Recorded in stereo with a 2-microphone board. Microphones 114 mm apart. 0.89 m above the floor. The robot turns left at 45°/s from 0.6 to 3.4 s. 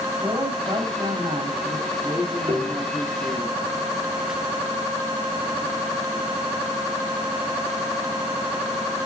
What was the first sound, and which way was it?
A man speaking, 30° right.